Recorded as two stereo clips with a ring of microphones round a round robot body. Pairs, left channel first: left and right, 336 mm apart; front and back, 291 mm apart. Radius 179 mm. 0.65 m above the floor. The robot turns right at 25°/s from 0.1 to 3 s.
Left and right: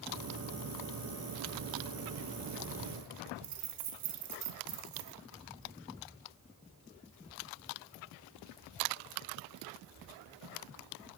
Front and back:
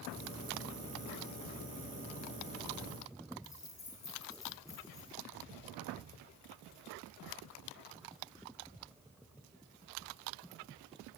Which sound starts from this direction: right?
Keys jangling, at 3.4 s.